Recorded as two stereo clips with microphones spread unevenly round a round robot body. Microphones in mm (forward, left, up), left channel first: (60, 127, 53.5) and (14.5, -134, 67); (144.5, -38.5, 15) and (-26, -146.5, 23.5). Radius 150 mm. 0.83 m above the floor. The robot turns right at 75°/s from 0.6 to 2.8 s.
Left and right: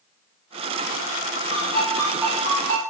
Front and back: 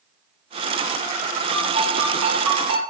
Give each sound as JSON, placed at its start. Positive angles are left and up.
{"t": 1.5, "sound": "a ringtone", "azimuth_deg": 120, "distance_m": 5.5}